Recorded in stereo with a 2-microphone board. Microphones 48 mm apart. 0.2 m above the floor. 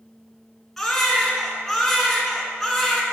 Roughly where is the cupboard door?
I don't hear a cupboard door.